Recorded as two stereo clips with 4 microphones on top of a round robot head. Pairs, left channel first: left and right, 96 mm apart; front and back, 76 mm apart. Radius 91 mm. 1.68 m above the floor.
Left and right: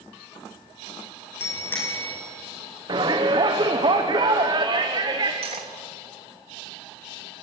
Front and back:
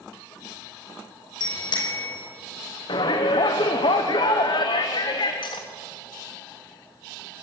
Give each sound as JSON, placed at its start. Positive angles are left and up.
{"t": 1.4, "sound": "a bicycle bell", "azimuth_deg": 20, "distance_m": 5.0}
{"t": 2.9, "sound": "a shout", "azimuth_deg": -35, "distance_m": 1.3}
{"t": 5.4, "sound": "cutlery clinking", "azimuth_deg": -45, "distance_m": 1.6}